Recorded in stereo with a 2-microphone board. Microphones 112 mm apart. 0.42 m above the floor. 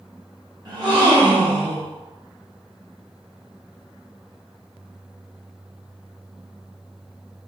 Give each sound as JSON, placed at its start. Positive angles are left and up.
{"t": 0.7, "sound": "a gasp", "side_deg": -40, "distance_m": 1.9}